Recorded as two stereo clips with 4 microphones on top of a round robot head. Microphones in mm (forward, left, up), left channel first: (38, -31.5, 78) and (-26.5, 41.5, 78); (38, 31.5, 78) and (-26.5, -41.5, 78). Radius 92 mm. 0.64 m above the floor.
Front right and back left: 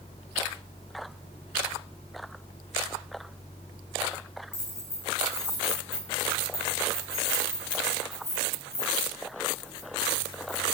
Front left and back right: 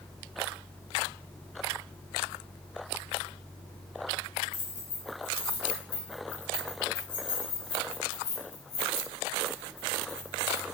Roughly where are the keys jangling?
Ahead.